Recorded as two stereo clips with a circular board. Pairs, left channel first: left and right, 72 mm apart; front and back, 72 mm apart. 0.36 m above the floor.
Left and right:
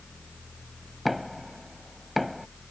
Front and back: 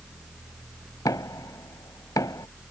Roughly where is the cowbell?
I don't hear a cowbell.